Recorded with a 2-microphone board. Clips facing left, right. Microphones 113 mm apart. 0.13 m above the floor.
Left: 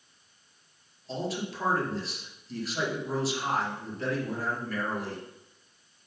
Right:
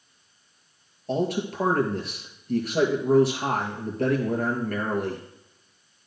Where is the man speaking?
55° right (ahead or behind), 2.5 m.